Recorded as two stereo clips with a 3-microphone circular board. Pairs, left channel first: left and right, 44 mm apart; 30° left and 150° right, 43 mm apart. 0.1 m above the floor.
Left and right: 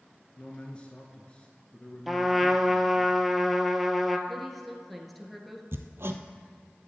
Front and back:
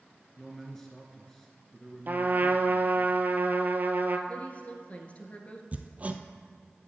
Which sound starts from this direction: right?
Hammering, at 5.7 s.